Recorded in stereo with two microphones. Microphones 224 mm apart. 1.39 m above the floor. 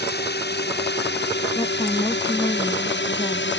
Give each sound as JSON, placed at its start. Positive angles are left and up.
{"t": 0.0, "sound": "a drone", "side_deg": 50}
{"t": 1.6, "sound": "a woman speaking", "side_deg": 20}